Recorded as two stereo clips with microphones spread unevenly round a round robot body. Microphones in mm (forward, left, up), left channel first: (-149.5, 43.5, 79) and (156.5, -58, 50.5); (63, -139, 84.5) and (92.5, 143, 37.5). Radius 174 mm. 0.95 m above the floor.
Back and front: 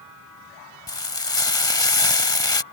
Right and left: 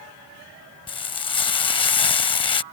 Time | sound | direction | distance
0.9 | frying | 135° right | ?